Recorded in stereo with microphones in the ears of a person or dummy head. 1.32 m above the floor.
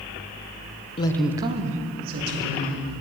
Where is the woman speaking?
30° left (ahead or behind), 0.5 m; by 3.0 s 60° right (ahead or behind), 2.0 m.